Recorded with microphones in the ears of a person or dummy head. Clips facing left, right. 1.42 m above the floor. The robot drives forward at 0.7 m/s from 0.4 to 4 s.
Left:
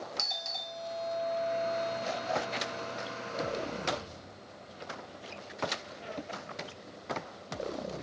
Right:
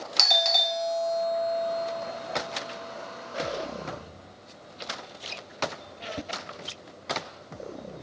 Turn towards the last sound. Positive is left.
turn(degrees=-20)  # may be behind; listen again after turning